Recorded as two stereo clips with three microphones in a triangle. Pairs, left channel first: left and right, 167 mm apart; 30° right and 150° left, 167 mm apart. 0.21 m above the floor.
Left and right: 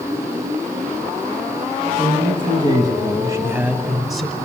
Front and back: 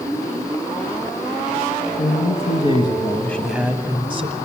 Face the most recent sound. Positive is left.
turn(degrees=175)